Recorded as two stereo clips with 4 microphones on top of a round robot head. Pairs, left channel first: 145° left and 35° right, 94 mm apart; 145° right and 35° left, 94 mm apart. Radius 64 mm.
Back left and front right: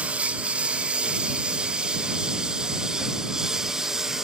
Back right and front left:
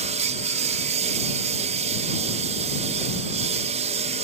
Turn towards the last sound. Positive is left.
turn(degrees=50)